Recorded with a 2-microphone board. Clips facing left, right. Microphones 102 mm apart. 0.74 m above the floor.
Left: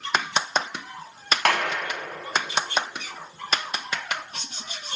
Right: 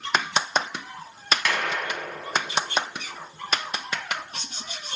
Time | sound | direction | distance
1.4 | a clap | 55° left (ahead or behind) | 4 m